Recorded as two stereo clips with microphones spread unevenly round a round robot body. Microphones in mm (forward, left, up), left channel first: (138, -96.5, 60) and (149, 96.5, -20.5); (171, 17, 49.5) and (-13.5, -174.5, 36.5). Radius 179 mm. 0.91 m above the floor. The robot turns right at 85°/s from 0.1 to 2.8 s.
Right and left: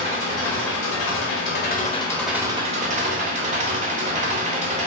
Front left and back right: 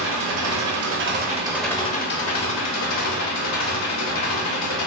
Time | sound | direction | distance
0.0 | an engine running | 175° right | 0.8 m